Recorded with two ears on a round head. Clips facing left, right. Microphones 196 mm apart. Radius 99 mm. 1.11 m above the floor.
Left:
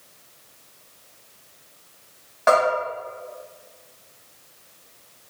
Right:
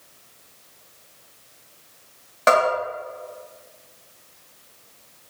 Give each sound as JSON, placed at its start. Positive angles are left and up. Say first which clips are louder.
{"t": 2.5, "sound": "a bell", "louder": "even", "side_deg": -50, "distance_m": 1.8}